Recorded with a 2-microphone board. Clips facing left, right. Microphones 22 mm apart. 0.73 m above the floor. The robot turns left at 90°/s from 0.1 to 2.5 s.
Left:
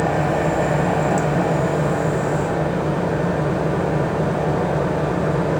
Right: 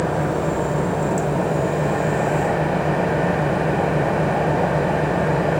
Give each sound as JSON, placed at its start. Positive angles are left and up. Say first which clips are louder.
{"t": 0.0, "sound": "an engine running", "louder": "left 2 dB", "azimuth_deg": 140, "distance_m": 2.5}